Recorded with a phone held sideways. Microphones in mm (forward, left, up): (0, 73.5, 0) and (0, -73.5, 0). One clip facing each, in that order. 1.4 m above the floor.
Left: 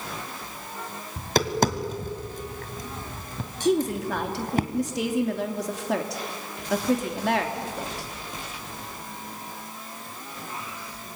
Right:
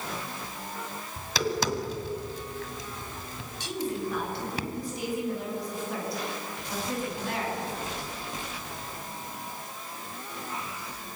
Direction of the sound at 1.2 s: 45° left (ahead or behind).